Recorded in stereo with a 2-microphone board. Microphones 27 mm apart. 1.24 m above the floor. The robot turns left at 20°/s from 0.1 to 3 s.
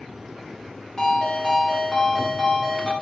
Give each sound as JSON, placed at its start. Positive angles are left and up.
{"t": 1.0, "sound": "a ringtone", "azimuth_deg": 20, "distance_m": 0.8}